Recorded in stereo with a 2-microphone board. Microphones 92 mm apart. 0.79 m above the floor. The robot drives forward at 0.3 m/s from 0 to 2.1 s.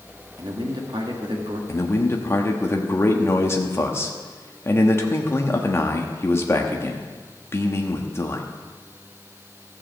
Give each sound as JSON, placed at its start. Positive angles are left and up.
{"t": 0.4, "sound": "a man speaking", "side_deg": -55, "distance_m": 1.6}
{"t": 1.7, "sound": "a man speaking", "side_deg": 30, "distance_m": 1.0}